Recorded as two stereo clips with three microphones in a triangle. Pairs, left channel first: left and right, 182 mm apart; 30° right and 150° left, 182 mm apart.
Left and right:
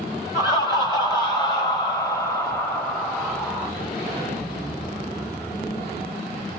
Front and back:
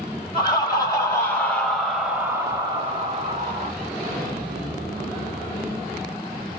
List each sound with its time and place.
0.3 s laughter: 30° left, 1.6 m; by 3.7 s 175° left, 1.3 m